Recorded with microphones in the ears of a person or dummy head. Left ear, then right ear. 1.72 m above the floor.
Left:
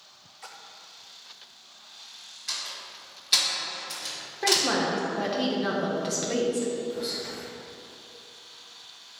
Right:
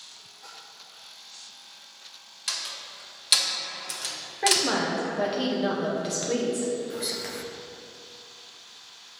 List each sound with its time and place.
0.4 s a splash: 40° left (ahead or behind), 0.5 m
2.5 s a door slam: 30° right (ahead or behind), 0.9 m
4.4 s a woman speaking: 5° left (ahead or behind), 0.8 m
6.9 s whispering: 40° right (ahead or behind), 0.9 m